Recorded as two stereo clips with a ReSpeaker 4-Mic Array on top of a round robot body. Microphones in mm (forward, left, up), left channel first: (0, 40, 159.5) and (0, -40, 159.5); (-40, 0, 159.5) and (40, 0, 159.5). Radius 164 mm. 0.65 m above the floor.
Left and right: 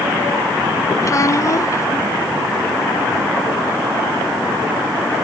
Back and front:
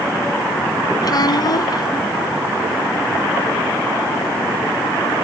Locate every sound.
1.0 s a child speaking: 140° left